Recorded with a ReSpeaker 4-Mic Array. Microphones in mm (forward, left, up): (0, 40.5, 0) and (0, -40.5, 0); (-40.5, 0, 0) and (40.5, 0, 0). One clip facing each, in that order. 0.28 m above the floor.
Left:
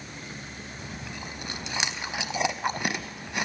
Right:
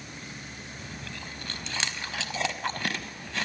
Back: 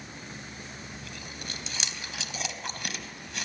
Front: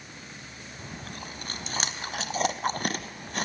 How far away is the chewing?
About 0.8 m.